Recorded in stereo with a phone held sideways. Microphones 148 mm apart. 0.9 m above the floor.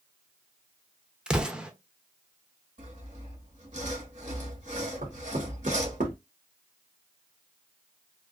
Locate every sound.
1.3 s an explosion: 5° right (ahead or behind), 0.5 m
2.8 s sawing: 55° right (ahead or behind), 1.3 m
5.0 s knocking: 70° right (ahead or behind), 1.0 m